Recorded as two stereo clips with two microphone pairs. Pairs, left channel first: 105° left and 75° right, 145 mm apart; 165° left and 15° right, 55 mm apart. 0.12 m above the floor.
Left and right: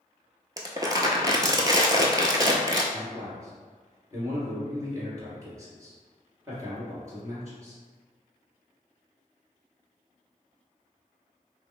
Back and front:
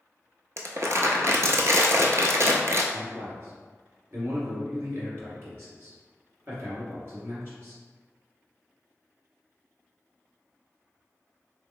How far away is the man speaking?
About 1.8 m.